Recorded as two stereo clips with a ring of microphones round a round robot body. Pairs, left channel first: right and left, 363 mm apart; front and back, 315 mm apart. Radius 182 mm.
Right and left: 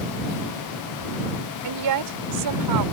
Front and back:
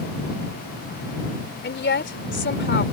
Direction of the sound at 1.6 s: 55° left.